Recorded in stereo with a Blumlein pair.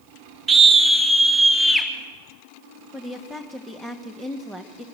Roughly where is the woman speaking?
Ahead.